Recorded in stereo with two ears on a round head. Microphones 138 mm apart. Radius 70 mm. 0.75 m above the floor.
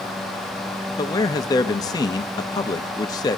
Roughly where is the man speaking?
Left.